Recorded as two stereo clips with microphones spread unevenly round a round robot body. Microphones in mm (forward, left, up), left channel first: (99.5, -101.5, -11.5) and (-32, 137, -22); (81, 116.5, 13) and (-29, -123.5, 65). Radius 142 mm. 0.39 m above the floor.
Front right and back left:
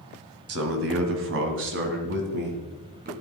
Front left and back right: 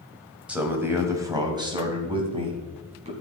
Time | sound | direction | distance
0.5 | a man speaking | 155° left | 2 m